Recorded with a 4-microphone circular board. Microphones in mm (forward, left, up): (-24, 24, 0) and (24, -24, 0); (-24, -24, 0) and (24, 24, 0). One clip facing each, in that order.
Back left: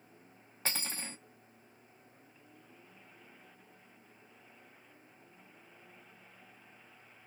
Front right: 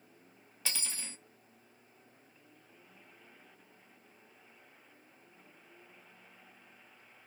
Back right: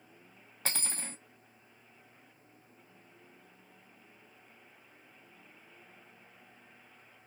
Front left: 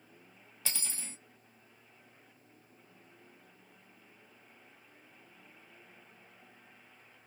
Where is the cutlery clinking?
175° right, 0.5 m.